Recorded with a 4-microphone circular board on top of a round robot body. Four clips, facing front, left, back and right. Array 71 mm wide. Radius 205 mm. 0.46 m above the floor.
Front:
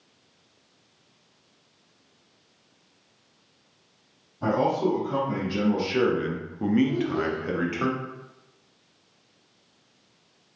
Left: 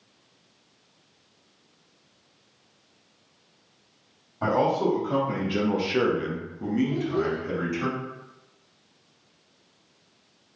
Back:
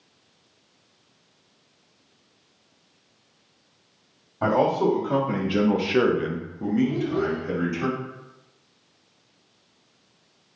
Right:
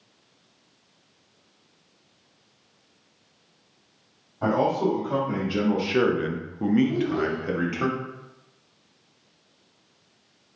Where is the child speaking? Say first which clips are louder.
Right 1 dB, back 1 dB; 60° right, 1.7 m.